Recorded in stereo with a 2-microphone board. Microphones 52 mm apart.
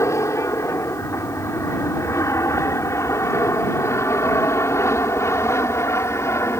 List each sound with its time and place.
0.0 s an aircraft: 65° left (ahead or behind); by 6.6 s 55° left (ahead or behind)